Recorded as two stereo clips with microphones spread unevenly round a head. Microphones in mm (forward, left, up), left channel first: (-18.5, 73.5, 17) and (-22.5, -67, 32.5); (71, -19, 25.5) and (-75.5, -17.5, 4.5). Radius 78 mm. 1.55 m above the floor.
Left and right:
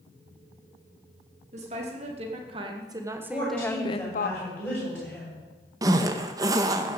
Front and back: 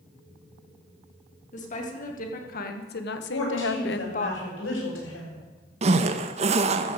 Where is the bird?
I don't hear a bird.